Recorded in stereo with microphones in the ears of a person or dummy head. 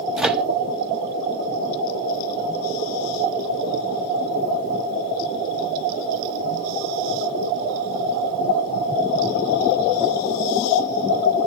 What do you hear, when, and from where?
0.2 s a microwave: 5° right (ahead or behind), 0.7 m